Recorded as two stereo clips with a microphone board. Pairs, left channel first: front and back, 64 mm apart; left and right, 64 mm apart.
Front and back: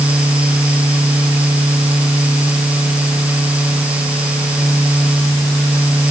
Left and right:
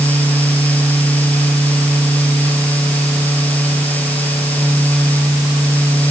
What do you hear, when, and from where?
Only background noise.